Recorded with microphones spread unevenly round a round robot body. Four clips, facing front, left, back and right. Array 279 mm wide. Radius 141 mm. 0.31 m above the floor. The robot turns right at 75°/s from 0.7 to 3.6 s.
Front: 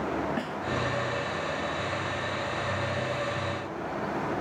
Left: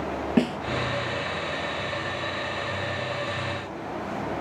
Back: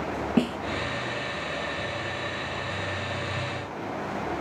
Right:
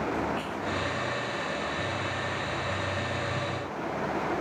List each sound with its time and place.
0.4 s a snare drum: 130° left